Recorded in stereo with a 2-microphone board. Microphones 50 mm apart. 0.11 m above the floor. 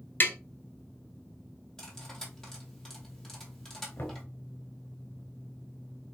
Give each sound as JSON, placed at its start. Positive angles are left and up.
{"t": 0.2, "sound": "tapping", "side_deg": 40, "distance_m": 1.0}
{"t": 1.8, "sound": "cutlery clinking", "side_deg": 10, "distance_m": 2.0}
{"t": 4.0, "sound": "knocking", "side_deg": 40, "distance_m": 1.2}